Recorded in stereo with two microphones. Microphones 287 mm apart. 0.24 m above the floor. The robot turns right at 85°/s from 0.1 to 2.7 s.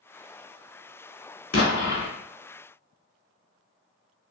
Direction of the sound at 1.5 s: 50° left.